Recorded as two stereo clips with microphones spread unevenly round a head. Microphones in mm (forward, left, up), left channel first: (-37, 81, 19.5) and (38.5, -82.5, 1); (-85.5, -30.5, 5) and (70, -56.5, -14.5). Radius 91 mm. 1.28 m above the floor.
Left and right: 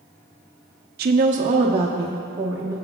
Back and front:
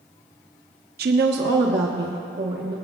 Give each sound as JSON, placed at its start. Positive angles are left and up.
{"t": 1.0, "sound": "a woman speaking", "azimuth_deg": -30, "distance_m": 0.6}